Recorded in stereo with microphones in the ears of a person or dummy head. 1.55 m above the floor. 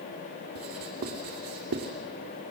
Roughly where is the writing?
Right.